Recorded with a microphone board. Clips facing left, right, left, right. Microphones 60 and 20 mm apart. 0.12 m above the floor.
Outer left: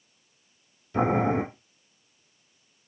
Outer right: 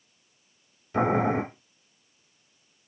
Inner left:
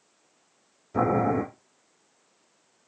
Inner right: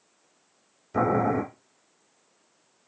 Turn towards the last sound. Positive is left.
turn(degrees=-25)  # may be behind; listen again after turning